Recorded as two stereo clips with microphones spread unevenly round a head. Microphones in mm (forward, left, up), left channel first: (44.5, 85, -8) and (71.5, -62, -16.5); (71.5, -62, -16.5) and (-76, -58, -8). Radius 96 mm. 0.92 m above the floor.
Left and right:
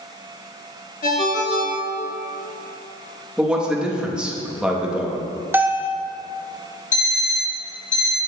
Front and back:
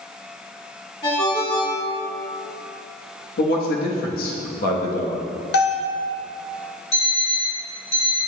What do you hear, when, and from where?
1.0 s a ringtone: 65° left, 1.2 m
3.4 s a man speaking: 5° left, 1.0 m
5.5 s a bell: 5° right, 0.6 m
6.9 s an alarm clock: 60° left, 1.6 m